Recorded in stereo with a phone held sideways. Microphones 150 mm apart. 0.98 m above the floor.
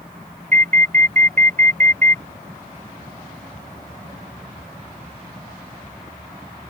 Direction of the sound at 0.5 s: 60° right (ahead or behind).